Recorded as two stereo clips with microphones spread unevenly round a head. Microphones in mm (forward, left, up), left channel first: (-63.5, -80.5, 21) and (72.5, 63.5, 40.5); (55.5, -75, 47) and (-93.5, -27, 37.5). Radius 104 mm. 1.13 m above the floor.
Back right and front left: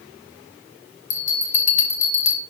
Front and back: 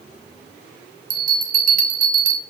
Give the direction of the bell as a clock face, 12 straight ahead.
6 o'clock.